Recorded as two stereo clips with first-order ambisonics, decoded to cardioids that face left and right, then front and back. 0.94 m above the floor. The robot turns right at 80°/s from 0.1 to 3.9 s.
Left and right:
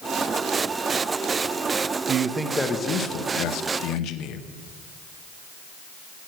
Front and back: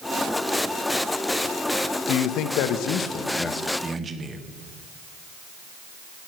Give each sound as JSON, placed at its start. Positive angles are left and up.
{"t": 2.1, "sound": "a man speaking", "azimuth_deg": -35, "distance_m": 0.8}